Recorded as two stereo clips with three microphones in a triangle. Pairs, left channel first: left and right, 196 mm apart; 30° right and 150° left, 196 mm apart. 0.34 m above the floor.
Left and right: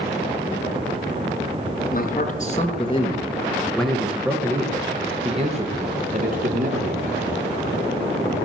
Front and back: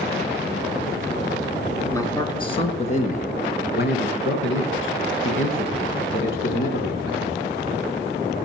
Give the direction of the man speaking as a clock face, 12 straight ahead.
11 o'clock.